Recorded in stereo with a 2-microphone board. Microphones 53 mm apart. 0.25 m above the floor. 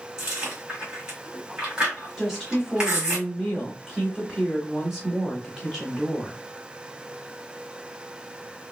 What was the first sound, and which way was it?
Chewing, 15° right (ahead or behind).